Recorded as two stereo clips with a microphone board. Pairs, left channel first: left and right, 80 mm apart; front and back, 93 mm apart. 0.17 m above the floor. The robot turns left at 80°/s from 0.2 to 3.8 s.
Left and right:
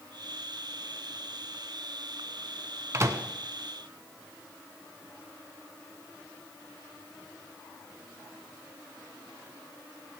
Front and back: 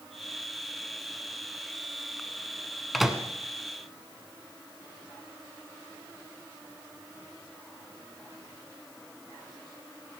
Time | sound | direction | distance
2.9 | a microwave | 90° right | 1.0 m